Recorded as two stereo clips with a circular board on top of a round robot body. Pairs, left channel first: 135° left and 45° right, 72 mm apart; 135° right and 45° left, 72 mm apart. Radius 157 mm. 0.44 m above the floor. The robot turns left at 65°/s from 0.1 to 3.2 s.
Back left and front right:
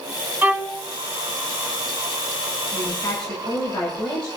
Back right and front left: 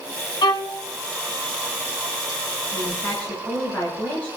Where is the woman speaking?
175° right, 7 m; by 4.3 s 150° left, 7 m.